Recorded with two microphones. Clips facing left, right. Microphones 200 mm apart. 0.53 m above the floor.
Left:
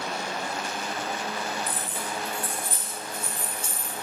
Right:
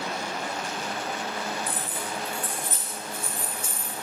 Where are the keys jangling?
15° right (ahead or behind), 2.5 m; by 3.9 s 35° left (ahead or behind), 3.5 m.